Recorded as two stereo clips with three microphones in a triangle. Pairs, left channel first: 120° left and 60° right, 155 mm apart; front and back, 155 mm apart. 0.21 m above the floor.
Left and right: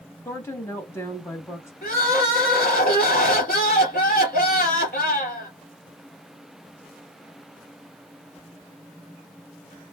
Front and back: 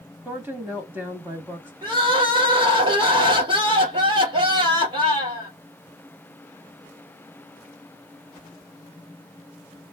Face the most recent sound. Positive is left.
turn(degrees=125)